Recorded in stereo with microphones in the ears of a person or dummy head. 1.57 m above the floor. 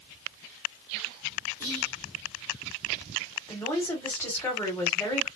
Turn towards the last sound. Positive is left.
turn(degrees=15)  # may be behind; listen again after turning